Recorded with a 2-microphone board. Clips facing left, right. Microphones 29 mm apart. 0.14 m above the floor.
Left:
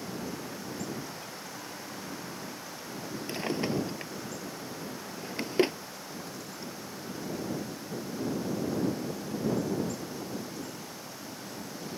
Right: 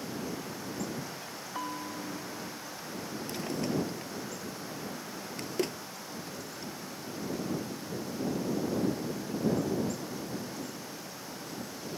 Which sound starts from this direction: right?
A bell, at 1.6 s.